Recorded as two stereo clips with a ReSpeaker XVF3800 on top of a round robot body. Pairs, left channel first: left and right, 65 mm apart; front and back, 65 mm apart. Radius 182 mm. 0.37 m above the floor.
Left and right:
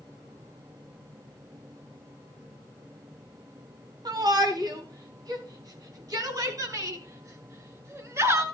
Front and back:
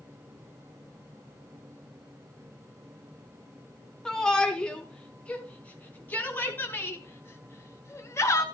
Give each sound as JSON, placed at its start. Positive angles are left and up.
{"t": 4.0, "sound": "a shout", "azimuth_deg": -80, "distance_m": 5.0}